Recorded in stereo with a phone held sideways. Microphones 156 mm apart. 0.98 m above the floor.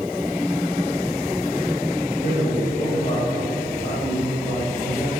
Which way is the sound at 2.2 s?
55° left (ahead or behind).